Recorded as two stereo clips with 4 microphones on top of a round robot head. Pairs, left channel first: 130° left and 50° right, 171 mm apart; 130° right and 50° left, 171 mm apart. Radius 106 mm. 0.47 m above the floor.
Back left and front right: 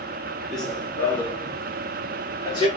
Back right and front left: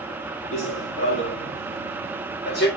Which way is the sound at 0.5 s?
140° right.